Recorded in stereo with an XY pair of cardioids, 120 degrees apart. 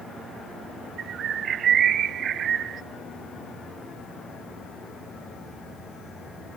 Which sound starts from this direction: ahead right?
A bird, at 1.0 s.